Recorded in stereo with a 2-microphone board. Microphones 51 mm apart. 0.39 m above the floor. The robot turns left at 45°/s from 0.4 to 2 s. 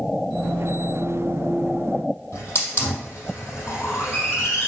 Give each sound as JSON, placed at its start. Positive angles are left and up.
{"t": 2.3, "sound": "a hiss", "side_deg": 45, "distance_m": 3.5}